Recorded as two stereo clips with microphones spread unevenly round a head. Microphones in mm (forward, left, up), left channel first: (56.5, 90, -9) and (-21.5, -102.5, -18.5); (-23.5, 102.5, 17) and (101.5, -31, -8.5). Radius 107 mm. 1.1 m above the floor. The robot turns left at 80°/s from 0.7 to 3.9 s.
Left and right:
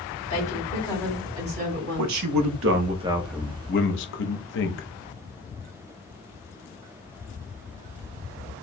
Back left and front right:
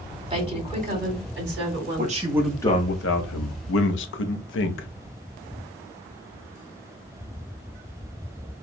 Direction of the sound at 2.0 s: 95° right.